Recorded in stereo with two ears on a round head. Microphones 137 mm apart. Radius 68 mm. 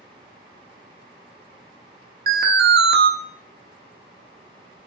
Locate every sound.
2.3 s an alarm: 70° right (ahead or behind), 0.7 m